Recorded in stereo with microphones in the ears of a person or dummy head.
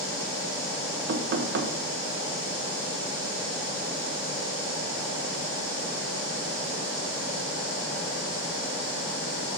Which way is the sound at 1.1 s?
55° right (ahead or behind).